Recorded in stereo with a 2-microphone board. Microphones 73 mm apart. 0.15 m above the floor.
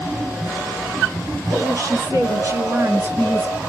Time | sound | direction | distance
1.5 | a woman speaking | 45° right (ahead or behind) | 2.5 m